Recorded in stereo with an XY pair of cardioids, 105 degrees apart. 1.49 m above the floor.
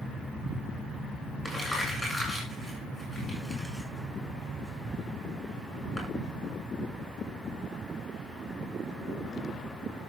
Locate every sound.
1.4 s crumpling: 5° left, 7.5 m